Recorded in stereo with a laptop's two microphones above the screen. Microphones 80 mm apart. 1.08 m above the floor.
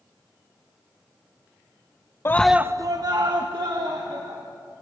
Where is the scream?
35° left (ahead or behind), 0.5 m; by 4.4 s 75° right (ahead or behind), 3 m.